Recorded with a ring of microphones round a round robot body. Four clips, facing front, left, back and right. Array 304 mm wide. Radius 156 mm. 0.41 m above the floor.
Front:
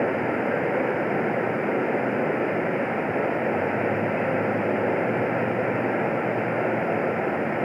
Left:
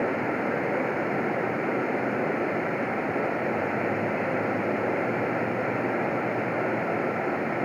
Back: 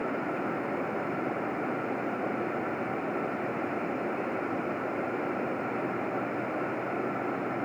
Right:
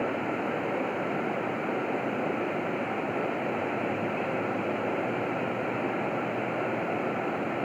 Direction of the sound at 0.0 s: 15° left.